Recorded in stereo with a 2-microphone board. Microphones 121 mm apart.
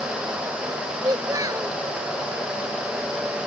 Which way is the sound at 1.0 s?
30° right (ahead or behind).